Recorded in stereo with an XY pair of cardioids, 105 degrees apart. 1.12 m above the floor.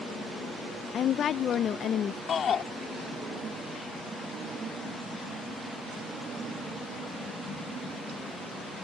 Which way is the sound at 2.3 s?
50° left.